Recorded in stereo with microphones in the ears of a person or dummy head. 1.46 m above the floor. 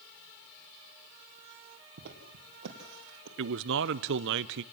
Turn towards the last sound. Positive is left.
turn(degrees=-65)  # may be behind; listen again after turning